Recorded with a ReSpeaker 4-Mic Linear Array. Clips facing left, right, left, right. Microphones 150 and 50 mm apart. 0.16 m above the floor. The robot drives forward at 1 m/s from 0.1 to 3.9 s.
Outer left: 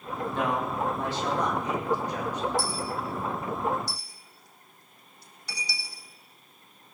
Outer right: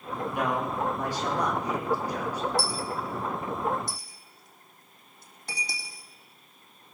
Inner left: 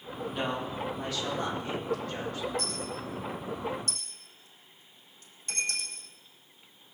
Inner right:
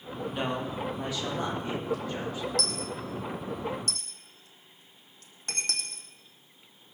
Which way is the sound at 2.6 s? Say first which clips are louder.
Even, inner right 2 dB; 70° right (ahead or behind).